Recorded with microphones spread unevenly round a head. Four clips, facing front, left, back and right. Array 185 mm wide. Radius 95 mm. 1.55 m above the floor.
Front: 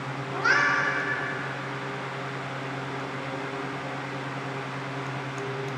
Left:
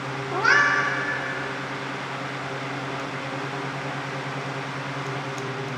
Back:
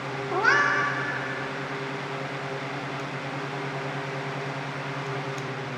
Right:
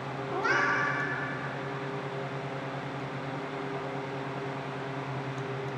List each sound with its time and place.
0.3 s a cat meowing: 150° left, 1.8 m